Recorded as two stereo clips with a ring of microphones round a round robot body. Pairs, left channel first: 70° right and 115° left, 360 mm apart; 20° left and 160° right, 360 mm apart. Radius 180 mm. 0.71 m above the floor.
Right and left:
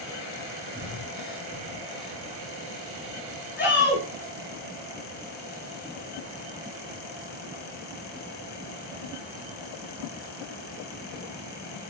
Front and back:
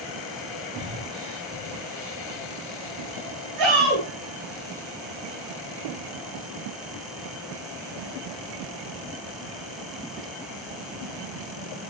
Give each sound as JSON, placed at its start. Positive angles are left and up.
{"t": 0.7, "sound": "breathing", "azimuth_deg": -145, "distance_m": 8.0}
{"t": 3.6, "sound": "a shout", "azimuth_deg": -130, "distance_m": 7.5}